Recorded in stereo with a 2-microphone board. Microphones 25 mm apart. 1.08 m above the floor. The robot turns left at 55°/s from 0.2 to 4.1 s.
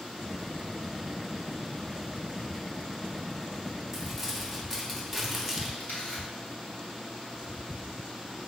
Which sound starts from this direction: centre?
Crumpling, at 3.9 s.